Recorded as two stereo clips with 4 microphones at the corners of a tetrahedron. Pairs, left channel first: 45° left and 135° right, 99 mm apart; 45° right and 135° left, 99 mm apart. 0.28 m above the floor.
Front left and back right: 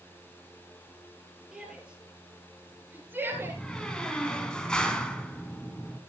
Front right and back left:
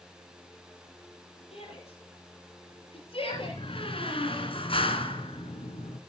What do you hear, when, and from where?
1.5 s a shout: 50° right, 7 m; by 3.6 s 70° right, 6 m
3.3 s a door slam: 35° right, 2 m